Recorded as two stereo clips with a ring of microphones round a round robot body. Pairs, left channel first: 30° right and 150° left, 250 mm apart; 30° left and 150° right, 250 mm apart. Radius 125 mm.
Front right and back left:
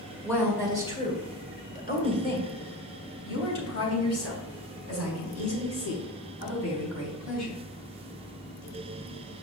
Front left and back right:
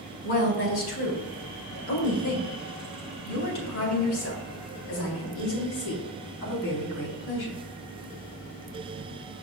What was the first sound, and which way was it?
A woman speaking, 55° left.